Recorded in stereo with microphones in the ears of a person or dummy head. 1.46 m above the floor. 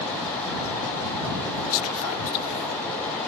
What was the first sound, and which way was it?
Whispering, 75° left (ahead or behind).